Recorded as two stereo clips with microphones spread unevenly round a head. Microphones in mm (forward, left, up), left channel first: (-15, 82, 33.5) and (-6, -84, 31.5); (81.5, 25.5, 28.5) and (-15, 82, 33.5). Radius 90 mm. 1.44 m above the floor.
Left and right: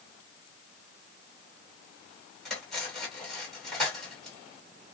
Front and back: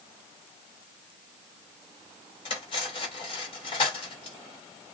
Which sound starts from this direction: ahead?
Cutlery clinking, at 2.5 s.